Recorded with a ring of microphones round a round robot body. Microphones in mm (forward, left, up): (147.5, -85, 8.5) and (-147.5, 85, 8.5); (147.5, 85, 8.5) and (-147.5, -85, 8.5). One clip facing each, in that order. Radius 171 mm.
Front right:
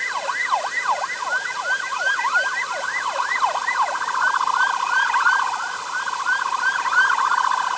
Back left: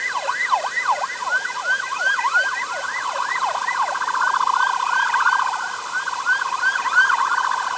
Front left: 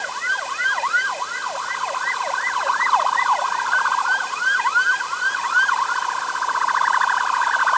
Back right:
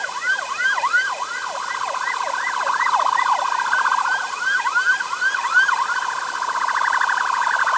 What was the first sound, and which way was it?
Only background noise.